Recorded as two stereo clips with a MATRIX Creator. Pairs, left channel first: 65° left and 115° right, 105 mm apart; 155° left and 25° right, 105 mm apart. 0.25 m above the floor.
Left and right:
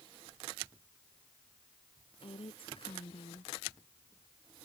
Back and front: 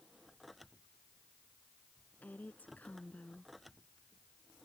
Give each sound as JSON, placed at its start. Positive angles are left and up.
{"t": 2.2, "sound": "a woman speaking", "azimuth_deg": 85}